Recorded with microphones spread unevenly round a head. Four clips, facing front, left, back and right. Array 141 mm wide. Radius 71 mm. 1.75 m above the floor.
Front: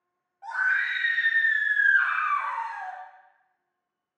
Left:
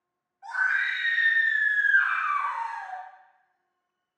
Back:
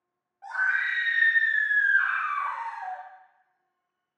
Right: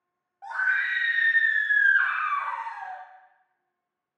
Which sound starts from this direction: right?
A scream, at 0.4 s.